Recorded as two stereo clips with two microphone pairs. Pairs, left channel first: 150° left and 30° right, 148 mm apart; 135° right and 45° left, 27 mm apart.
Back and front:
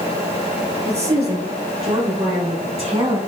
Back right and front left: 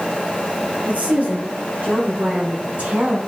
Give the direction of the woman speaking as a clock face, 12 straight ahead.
12 o'clock.